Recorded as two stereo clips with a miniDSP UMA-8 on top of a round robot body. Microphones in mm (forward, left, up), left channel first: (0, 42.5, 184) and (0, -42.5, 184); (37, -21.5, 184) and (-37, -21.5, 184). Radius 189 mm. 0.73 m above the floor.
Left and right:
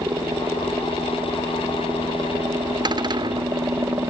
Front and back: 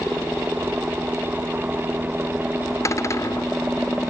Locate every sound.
0.0 s a helicopter: 110° right
2.9 s a cupboard door: 50° right